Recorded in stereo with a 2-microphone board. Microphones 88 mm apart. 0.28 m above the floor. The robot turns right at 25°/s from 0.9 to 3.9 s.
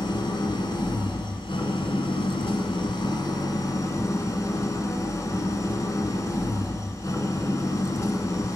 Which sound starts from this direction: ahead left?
An engine running, at 0.0 s.